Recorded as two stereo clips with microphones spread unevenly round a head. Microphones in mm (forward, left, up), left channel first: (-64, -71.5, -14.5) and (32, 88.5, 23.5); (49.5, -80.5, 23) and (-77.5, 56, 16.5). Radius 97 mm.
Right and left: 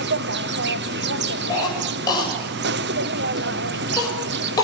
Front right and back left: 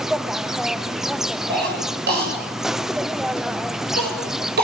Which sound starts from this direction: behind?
A cough, at 1.5 s.